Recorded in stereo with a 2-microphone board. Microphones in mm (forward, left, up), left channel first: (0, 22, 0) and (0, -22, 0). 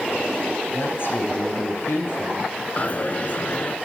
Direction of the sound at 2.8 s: 40° left (ahead or behind).